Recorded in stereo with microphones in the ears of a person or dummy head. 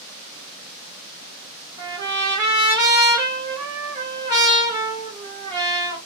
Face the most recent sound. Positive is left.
turn(degrees=-25)  # may be behind; listen again after turning